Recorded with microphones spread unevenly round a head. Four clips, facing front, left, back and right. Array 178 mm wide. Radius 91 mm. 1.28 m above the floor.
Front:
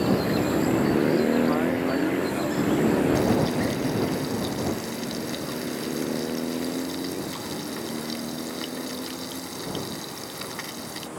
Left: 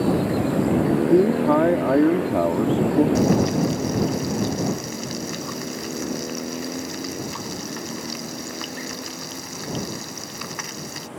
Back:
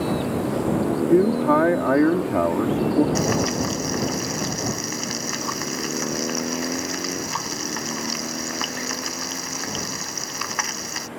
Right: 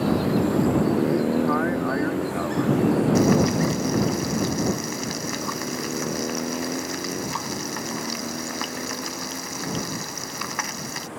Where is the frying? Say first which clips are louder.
Even, even; 135° right.